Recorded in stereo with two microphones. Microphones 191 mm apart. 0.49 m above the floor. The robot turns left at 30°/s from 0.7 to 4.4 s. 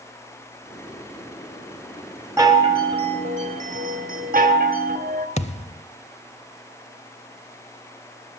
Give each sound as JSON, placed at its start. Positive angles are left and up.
{"t": 2.4, "sound": "a chime", "azimuth_deg": -20, "distance_m": 1.9}
{"t": 5.4, "sound": "a thud", "side_deg": 35, "distance_m": 0.7}